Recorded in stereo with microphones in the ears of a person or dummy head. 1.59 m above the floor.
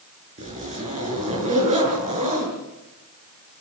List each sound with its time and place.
0.4 s a zipper: 40° right (ahead or behind), 7 m